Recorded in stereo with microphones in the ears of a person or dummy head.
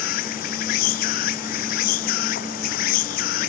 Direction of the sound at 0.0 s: 55° left (ahead or behind).